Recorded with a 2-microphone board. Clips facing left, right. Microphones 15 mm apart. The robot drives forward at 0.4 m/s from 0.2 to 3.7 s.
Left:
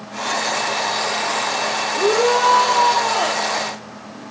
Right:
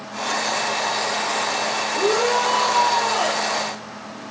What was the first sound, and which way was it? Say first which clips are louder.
A shout: left 4 dB; 10° right (ahead or behind).